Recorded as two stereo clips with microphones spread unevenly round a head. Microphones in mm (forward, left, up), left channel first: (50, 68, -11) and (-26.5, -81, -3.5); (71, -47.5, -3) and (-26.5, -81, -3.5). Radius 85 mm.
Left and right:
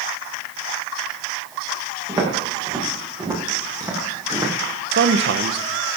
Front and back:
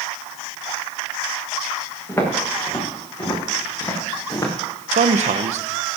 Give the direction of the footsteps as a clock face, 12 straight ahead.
2 o'clock.